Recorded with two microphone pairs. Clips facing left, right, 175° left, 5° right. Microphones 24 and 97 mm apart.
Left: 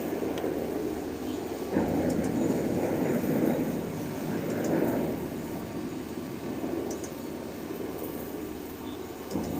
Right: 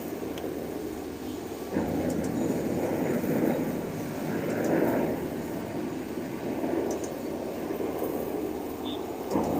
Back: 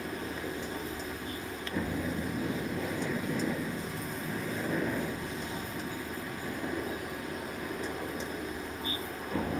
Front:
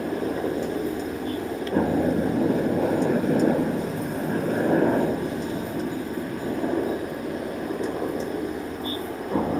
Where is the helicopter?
20° left; by 9.6 s 55° right.